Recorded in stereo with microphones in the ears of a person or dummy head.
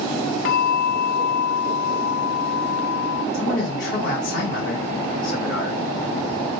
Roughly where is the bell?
Left.